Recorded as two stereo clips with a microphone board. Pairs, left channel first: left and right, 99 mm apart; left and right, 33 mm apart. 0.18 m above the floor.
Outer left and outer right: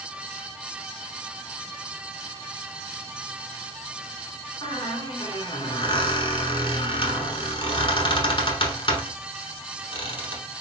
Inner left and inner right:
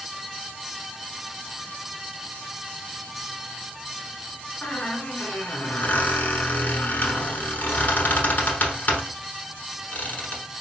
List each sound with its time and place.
4.6 s a squeak: 55° left (ahead or behind), 0.9 m